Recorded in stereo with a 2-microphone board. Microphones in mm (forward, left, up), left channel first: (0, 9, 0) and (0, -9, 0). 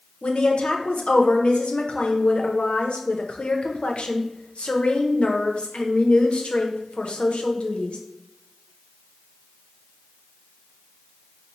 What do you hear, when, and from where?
0.2 s a woman speaking: 85° left, 0.6 m